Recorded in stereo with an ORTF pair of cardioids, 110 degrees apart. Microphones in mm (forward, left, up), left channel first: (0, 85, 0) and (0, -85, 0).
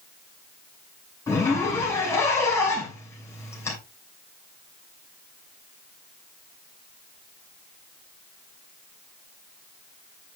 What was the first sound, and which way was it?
A zipper, 15° left.